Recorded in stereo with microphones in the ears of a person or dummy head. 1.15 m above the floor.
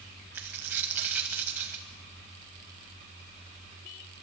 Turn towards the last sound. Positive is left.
turn(degrees=-10)  # may be behind; listen again after turning